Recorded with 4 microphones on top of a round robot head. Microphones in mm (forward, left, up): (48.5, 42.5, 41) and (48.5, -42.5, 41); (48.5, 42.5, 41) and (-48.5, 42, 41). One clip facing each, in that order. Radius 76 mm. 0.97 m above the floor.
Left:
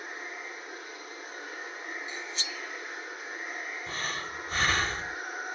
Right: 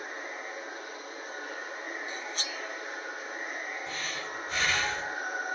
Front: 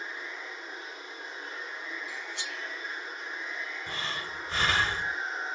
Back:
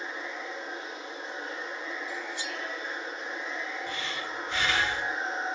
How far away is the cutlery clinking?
About 0.6 m.